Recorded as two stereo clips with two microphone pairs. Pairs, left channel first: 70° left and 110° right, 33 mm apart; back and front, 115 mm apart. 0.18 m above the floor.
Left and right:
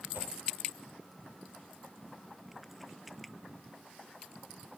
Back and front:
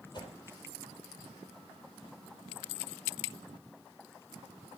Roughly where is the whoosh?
Behind right.